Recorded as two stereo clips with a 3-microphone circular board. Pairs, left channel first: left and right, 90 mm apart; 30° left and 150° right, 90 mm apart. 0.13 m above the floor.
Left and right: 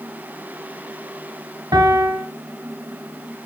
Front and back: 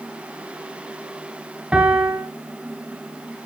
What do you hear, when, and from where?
1.7 s a piano: 75° right, 2 m